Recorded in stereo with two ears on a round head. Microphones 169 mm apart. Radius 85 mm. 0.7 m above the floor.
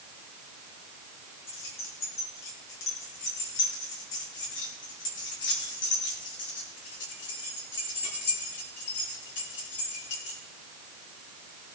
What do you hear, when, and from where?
1.5 s keys jangling: 85° left, 5.5 m; by 10.4 s 70° left (ahead or behind), 9 m